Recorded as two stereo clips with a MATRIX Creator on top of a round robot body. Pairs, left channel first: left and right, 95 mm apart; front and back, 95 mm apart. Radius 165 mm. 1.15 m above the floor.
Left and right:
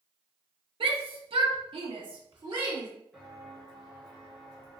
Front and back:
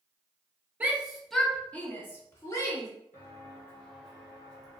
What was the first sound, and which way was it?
A shout, 110° right.